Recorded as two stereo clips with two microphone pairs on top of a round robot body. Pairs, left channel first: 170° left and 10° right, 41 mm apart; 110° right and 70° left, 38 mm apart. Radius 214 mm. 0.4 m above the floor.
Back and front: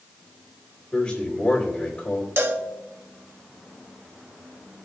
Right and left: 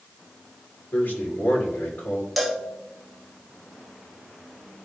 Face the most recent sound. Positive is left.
turn(degrees=-25)